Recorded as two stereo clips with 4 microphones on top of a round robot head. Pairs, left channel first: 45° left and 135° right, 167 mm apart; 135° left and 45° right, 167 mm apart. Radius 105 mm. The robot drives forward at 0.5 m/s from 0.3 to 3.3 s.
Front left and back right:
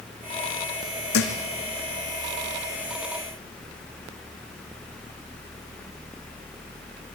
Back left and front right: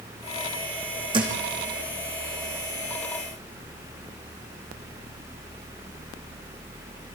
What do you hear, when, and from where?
1.1 s a thud: 20° left, 4.5 m